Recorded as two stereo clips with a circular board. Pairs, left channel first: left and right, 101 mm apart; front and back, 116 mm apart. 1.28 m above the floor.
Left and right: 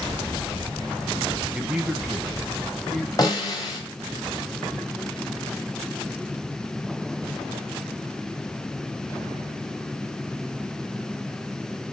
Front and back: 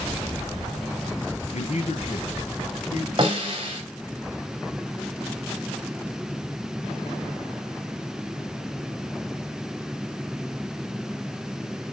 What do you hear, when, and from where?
1.5 s a man speaking: 15° right, 0.8 m; by 3.1 s straight ahead, 2.5 m
3.2 s a snare drum: 135° left, 2.5 m